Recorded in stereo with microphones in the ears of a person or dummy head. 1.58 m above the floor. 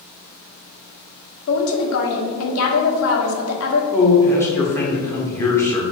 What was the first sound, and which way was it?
A woman speaking, 85° left.